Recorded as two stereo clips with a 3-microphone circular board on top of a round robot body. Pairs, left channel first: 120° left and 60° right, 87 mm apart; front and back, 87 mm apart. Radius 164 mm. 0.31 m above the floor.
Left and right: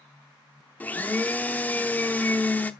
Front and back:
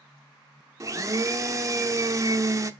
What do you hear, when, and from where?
0.8 s a blender: 175° left, 1.1 m